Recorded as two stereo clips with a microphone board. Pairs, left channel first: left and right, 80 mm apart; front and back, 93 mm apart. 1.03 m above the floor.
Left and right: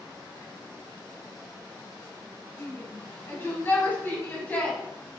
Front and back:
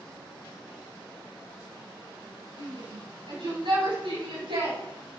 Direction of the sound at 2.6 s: 145° left.